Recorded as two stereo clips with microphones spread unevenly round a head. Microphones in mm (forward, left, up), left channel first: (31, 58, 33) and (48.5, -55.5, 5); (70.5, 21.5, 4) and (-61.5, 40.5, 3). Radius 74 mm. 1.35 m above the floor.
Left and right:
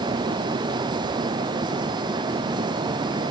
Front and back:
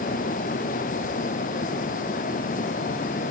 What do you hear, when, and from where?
Only background noise.